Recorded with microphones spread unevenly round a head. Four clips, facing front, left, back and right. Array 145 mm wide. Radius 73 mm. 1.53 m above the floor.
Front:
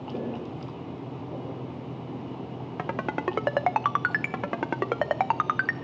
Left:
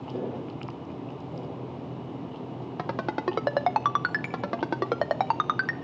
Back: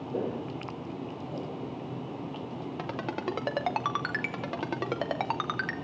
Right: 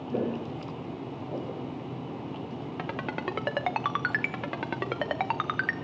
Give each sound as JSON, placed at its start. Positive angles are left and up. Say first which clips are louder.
{"t": 0.1, "sound": "footsteps", "louder": "right 3 dB, back 1 dB", "azimuth_deg": -90, "distance_m": 4.0}
{"t": 2.8, "sound": "a ringtone", "louder": "left 5 dB, front 6 dB", "azimuth_deg": 35, "distance_m": 0.7}